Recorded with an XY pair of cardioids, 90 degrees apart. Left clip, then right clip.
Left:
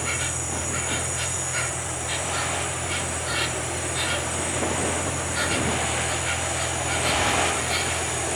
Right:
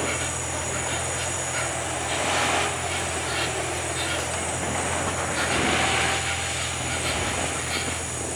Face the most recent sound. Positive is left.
turn(degrees=15)